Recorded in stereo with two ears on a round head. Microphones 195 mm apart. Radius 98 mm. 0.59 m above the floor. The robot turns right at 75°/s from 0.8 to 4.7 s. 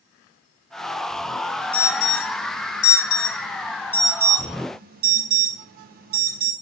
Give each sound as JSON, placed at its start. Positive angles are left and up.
{"t": 1.7, "sound": "an alarm", "side_deg": 5, "distance_m": 5.0}